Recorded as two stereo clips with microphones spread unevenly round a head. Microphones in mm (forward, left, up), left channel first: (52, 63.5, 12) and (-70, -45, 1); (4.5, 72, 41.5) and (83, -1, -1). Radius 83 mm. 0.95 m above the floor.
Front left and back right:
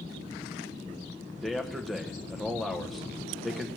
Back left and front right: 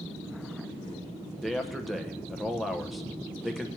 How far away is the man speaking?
About 0.9 m.